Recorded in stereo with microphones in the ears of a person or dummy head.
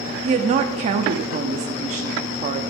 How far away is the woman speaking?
About 0.8 m.